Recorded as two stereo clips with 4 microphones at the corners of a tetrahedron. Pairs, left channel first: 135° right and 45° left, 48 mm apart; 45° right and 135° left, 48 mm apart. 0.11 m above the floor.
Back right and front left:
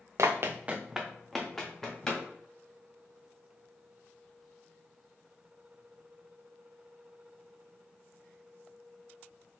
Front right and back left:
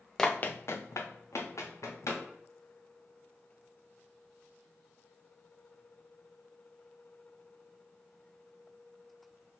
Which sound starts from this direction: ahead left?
Running footsteps, at 0.2 s.